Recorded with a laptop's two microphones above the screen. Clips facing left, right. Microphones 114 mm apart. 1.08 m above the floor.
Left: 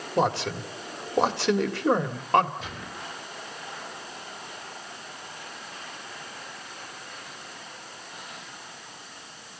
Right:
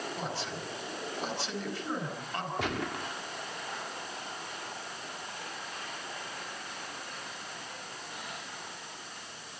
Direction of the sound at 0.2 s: 75° left (ahead or behind).